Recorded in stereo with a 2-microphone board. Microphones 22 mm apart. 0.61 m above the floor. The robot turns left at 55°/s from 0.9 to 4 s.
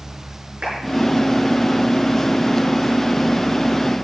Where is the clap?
55° right (ahead or behind), 6.5 m.